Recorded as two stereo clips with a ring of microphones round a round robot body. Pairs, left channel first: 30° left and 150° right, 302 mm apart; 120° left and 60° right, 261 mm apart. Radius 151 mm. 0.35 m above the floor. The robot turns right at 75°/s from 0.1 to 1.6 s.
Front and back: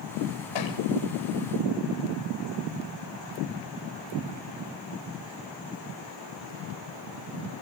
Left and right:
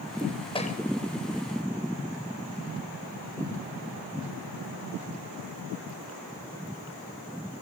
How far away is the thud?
About 8 m.